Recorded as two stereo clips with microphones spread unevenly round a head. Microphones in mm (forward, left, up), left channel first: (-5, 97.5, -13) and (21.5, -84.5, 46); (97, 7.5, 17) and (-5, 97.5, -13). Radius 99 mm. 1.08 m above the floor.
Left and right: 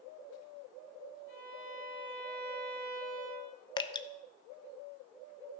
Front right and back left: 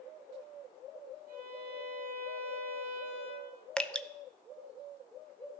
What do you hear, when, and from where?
1.3 s a violin: 130° left, 4.5 m
3.8 s dripping: 50° left, 0.6 m